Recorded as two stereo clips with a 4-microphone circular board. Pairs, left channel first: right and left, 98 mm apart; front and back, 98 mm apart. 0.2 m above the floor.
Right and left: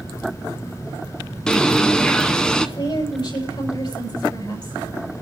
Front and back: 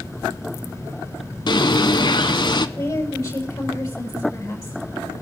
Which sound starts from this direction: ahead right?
A woman speaking, at 2.8 s.